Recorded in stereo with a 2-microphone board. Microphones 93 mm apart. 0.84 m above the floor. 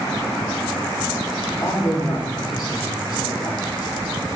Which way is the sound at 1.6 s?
45° left (ahead or behind).